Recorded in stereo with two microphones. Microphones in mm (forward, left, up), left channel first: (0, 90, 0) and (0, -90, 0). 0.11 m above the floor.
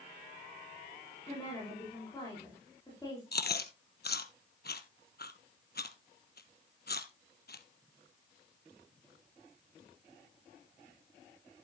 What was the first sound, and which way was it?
A woman speaking, 20° left (ahead or behind).